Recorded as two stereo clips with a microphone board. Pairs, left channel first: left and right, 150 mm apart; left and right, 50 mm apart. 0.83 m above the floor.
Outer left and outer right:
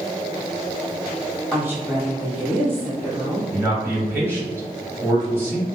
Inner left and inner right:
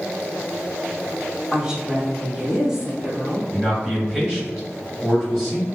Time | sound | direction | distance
1.5 | a woman speaking | 15° right (ahead or behind) | 1.4 m
3.5 | a man speaking | 15° right (ahead or behind) | 1.9 m